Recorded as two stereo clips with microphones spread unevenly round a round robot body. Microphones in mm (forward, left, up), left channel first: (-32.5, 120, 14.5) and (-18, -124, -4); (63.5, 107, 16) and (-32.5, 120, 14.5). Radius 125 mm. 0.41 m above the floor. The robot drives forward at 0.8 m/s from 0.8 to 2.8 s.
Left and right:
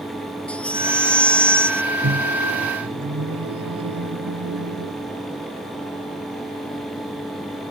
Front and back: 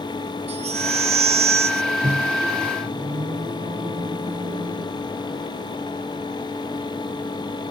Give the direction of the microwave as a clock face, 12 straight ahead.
4 o'clock.